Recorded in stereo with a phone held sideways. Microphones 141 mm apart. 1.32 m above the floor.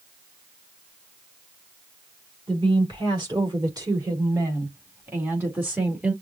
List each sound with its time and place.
2.5 s a woman speaking: 35° right (ahead or behind), 4 m; by 6.1 s 10° right (ahead or behind), 4 m